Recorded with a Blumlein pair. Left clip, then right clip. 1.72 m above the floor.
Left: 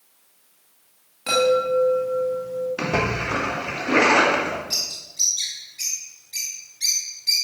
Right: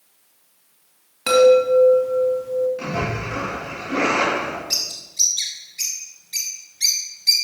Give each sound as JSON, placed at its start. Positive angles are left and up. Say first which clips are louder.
{"t": 1.3, "sound": "a chime", "louder": "right 6 dB", "azimuth_deg": -65, "distance_m": 3.0}
{"t": 2.8, "sound": "a splash", "louder": "left 3 dB", "azimuth_deg": 35, "distance_m": 2.0}
{"t": 4.7, "sound": "a bird", "louder": "right 2 dB", "azimuth_deg": -65, "distance_m": 2.5}